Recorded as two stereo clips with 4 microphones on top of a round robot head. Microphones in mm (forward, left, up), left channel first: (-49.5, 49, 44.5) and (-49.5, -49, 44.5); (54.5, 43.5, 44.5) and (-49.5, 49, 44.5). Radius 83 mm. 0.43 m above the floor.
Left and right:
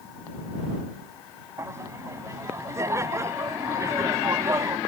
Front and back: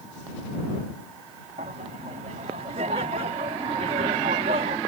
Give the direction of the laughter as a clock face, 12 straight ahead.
5 o'clock.